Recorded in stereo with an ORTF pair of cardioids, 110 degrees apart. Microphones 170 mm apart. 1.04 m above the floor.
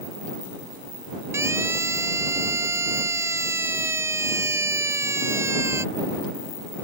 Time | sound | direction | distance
1.3 | a siren | 15° right | ?